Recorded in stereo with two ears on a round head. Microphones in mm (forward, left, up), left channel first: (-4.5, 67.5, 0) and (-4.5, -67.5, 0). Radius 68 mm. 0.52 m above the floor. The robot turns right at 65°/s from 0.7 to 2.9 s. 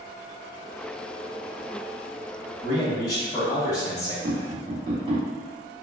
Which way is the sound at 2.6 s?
20° left (ahead or behind).